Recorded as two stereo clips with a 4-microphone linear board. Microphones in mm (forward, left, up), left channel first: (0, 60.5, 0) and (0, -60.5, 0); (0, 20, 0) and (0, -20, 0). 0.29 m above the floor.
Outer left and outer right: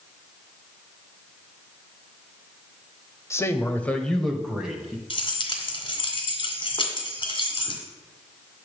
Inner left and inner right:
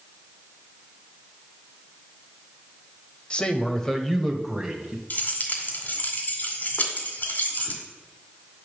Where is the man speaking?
25° left (ahead or behind), 1.0 m; by 5.0 s 10° right (ahead or behind), 1.3 m.